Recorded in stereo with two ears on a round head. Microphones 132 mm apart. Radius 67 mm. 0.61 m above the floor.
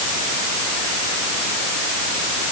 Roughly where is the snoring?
No snoring in this recording.